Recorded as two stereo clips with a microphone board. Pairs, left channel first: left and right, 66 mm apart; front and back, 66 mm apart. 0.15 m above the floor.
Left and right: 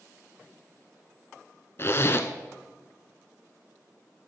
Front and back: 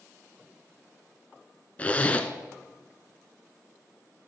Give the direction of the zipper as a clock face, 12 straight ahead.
10 o'clock.